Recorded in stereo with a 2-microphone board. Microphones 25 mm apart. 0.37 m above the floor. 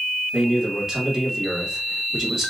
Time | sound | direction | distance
0.3 | a man speaking | 15° right (ahead or behind) | 1.3 m